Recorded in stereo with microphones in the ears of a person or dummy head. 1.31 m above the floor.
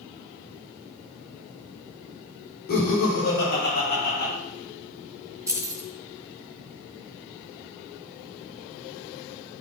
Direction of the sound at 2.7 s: 60° left (ahead or behind).